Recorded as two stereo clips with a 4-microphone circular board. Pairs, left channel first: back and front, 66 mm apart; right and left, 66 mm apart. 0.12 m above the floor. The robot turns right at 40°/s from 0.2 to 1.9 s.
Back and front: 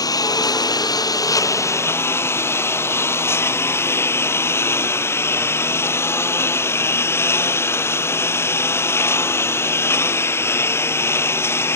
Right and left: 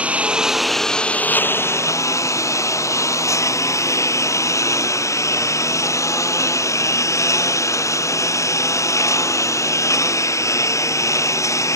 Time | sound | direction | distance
0.0 | a lawn mower | 160° left | ?